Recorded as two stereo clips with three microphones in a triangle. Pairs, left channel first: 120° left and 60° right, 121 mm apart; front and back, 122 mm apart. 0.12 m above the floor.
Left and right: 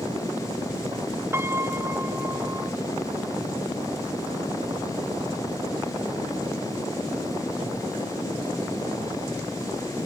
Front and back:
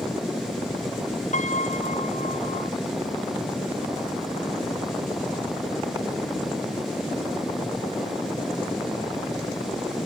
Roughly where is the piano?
Ahead.